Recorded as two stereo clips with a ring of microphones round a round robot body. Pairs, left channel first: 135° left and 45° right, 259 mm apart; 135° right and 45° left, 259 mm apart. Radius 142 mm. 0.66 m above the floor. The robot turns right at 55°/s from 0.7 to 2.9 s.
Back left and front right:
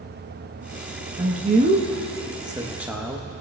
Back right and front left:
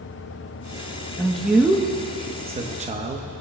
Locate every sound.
1.2 s a man speaking: 60° right, 0.8 m; by 3.2 s 35° left, 0.8 m